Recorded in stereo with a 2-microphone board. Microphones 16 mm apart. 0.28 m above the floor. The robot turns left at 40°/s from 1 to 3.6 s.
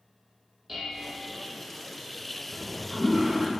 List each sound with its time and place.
0.7 s dishes clattering: 5° right (ahead or behind), 6.5 m; by 1.2 s centre (ahead or behind), 6.5 m
2.5 s a toilet flushing: 50° left, 2.5 m; by 3.5 s 10° left, 2.5 m